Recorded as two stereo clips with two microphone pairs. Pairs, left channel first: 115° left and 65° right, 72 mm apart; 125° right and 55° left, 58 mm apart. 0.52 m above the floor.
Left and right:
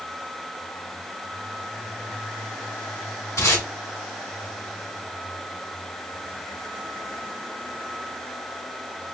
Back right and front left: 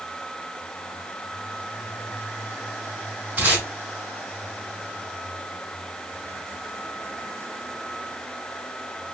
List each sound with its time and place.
3.4 s tape being pulled: 105° left, 1.8 m